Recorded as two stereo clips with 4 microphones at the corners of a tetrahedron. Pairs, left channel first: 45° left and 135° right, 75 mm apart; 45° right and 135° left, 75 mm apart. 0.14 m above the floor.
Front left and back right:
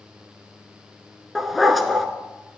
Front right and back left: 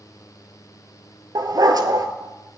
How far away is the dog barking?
About 0.7 m.